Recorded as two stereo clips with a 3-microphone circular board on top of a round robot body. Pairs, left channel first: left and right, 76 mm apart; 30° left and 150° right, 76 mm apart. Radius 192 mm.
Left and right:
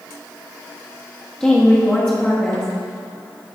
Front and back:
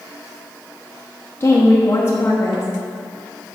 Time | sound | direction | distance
1.4 | a woman speaking | 25° left | 1.4 m